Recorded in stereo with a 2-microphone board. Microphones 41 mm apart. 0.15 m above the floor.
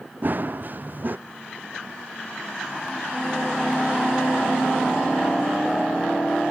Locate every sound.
0.2 s running footsteps: 45° right (ahead or behind)